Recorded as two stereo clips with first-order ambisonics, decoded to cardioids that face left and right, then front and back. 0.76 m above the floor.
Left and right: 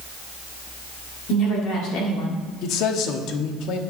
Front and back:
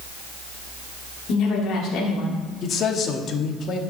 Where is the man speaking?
55° left, 1.0 m.